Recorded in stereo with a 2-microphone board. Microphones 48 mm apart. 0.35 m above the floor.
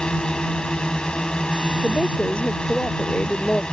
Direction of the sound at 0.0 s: 20° left (ahead or behind).